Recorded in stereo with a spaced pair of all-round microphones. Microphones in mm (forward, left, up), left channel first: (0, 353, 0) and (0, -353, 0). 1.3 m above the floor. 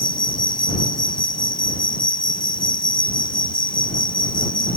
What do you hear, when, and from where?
0.0 s an insect: 40° left (ahead or behind)